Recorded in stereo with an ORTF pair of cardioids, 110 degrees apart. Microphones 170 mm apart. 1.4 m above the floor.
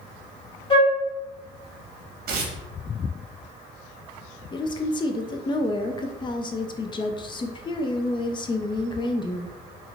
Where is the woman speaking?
25° left, 0.6 m.